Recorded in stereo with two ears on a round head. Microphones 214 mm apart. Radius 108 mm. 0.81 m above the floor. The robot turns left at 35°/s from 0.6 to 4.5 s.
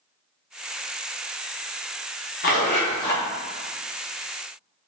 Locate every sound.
2.4 s a zipper: 40° left (ahead or behind), 0.7 m; by 3.2 s 10° left (ahead or behind), 0.7 m